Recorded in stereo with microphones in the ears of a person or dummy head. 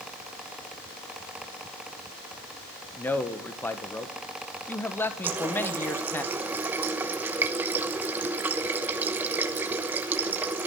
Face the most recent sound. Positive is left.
turn(degrees=-10)  # may be behind; listen again after turning